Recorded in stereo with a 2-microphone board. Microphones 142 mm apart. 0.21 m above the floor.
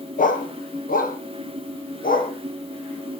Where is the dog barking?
70° left (ahead or behind), 1.3 m; by 2.3 s 80° left, 2.5 m.